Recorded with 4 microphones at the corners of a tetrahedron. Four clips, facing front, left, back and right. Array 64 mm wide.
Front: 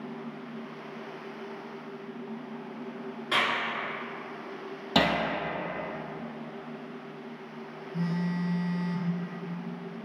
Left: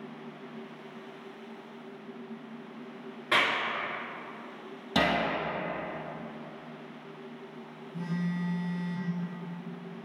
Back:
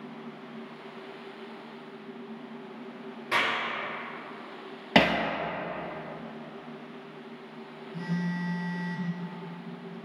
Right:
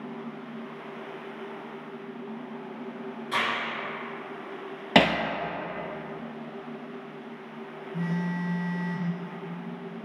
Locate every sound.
3.3 s a clap: 100° left, 1.8 m
5.0 s hammering: 120° right, 0.7 m
7.9 s a phone buzzing: 80° right, 1.3 m